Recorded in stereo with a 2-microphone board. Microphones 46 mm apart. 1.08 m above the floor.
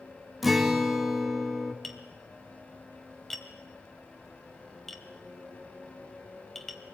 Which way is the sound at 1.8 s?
5° left (ahead or behind).